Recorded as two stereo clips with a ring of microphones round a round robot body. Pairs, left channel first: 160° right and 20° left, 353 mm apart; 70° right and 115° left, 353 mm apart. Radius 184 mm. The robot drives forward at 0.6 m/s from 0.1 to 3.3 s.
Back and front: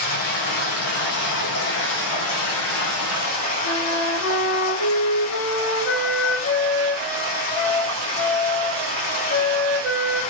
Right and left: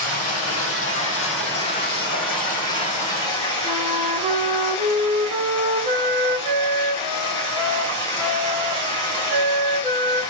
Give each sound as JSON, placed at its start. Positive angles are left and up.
{"t": 0.0, "sound": "running water", "azimuth_deg": -115, "distance_m": 3.0}
{"t": 3.6, "sound": "a flute", "azimuth_deg": -165, "distance_m": 4.0}